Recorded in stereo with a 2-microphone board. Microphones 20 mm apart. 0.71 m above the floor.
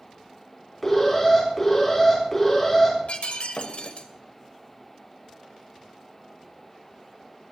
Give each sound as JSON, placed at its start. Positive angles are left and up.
{"t": 0.8, "sound": "an alarm", "side_deg": 10, "distance_m": 7.0}
{"t": 3.1, "sound": "breaking glass", "side_deg": 70, "distance_m": 1.8}